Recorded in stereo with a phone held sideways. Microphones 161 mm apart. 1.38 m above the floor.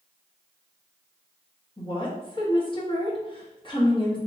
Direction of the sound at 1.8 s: 30° left (ahead or behind).